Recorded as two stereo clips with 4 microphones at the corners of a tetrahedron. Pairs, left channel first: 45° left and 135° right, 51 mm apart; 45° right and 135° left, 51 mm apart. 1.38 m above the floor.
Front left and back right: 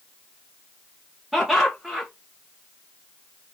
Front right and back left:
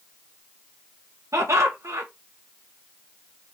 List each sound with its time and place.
1.3 s laughter: 145° left, 1.1 m